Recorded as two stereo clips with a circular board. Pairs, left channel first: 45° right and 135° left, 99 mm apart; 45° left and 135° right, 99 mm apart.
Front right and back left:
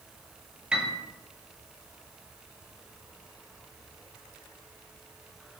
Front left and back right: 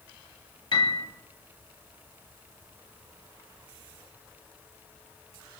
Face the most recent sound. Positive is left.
turn(degrees=60)